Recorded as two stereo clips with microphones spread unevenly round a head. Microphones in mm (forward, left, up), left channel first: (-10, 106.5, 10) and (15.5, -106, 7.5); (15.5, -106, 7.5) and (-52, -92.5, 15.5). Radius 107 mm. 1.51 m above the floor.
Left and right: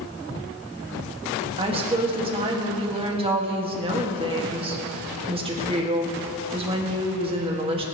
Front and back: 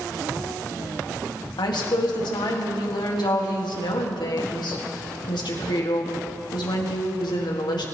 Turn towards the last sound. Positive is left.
turn(degrees=-20)